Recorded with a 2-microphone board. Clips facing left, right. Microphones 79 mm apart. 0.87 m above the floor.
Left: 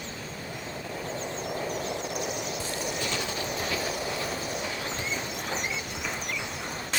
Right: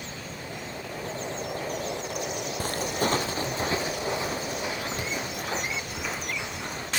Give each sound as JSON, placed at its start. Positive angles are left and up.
{"t": 2.6, "sound": "footsteps", "side_deg": -50, "distance_m": 1.8}